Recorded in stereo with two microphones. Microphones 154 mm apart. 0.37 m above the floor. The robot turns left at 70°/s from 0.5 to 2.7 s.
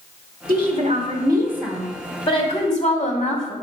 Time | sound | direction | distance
0.5 | a woman speaking | 95° right | 2 m